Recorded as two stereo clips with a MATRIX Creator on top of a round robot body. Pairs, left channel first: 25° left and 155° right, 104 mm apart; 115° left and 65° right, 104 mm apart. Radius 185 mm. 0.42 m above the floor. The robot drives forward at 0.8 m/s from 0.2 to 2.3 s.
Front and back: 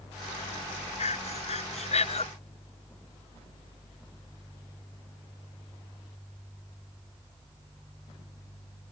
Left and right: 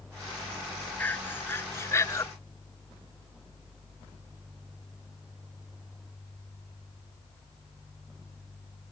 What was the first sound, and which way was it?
Breathing, 40° left.